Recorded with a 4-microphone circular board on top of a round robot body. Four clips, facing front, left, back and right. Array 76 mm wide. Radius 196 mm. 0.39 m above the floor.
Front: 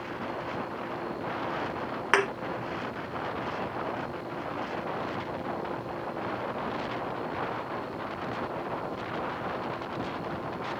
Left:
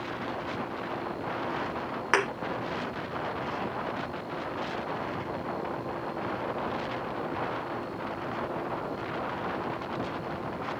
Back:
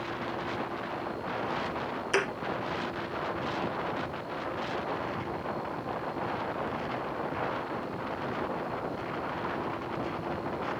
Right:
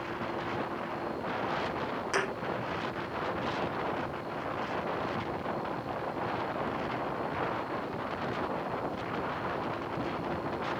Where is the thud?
35° left, 1.2 m.